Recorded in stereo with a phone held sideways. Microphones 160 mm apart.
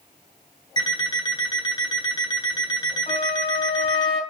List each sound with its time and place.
0.8 s an alarm clock: 25° left (ahead or behind), 1.8 m
3.1 s a flute: 45° left (ahead or behind), 3.5 m